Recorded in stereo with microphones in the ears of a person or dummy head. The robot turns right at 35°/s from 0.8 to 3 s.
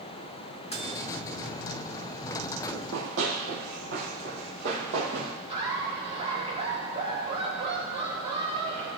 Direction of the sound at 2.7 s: 60° right (ahead or behind).